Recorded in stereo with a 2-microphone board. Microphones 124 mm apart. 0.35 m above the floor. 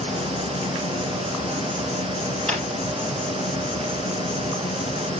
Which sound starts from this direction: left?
An insect, at 0.0 s.